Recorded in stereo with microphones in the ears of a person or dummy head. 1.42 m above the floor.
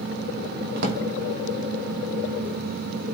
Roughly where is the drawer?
Right.